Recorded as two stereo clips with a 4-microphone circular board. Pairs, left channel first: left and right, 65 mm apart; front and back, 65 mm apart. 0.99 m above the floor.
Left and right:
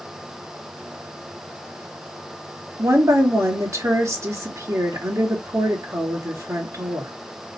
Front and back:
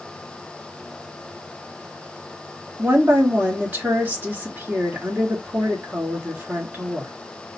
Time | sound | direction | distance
2.8 | a woman speaking | 125° right | 1.9 m